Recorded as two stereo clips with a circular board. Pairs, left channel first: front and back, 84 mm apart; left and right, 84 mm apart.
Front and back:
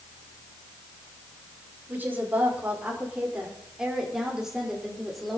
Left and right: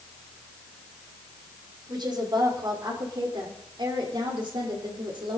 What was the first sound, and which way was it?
A woman speaking, 115° right.